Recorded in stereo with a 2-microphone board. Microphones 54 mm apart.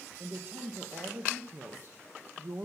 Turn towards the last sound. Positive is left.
turn(degrees=-45)  # may be behind; listen again after turning